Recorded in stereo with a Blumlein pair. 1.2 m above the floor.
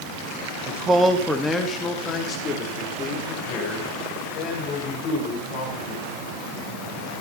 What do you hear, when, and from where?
0.7 s a man speaking: 30° right, 0.8 m; by 6.1 s 35° left, 7 m